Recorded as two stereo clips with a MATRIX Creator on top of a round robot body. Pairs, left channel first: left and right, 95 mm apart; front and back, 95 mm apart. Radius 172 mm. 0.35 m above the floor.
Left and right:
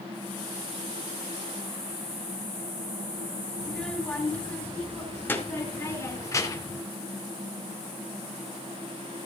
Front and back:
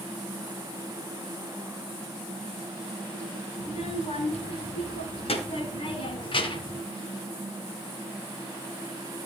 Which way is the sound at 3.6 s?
10° left.